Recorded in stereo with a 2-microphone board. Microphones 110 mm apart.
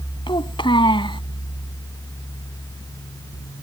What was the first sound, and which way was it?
A child speaking, 50° left (ahead or behind).